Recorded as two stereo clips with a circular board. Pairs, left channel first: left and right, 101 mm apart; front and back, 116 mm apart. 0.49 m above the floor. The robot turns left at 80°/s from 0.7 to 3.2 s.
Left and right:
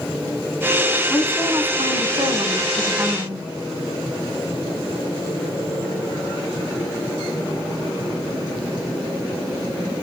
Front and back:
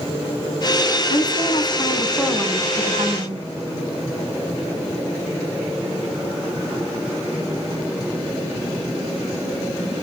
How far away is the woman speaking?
About 4 m.